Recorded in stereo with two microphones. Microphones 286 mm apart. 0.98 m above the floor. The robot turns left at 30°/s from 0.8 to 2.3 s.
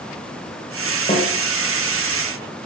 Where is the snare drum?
20° left (ahead or behind), 5 m; by 1.3 s 25° left (ahead or behind), 5 m.